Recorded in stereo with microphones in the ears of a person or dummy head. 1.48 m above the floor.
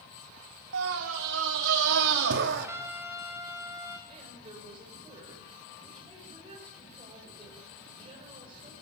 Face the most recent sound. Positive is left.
turn(degrees=-25)  # may be behind; listen again after turning